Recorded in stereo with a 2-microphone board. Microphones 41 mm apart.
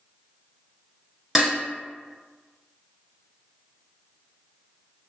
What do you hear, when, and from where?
1.4 s dishes clattering: 5° right (ahead or behind), 0.9 m